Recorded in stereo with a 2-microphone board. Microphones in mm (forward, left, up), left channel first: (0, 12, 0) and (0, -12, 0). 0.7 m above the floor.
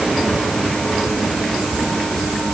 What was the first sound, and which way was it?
Only background noise.